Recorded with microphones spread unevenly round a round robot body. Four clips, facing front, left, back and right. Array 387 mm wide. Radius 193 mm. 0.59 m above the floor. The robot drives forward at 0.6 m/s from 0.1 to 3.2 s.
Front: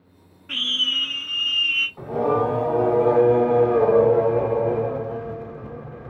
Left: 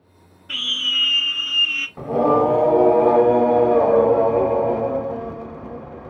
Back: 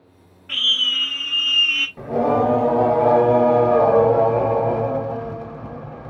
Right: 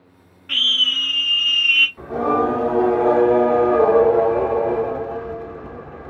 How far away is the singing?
About 1.2 m.